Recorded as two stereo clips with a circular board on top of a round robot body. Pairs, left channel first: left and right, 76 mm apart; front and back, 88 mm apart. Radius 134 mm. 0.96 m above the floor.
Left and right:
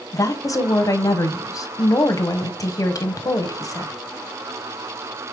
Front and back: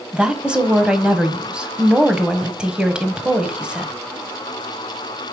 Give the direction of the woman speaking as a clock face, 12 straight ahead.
9 o'clock.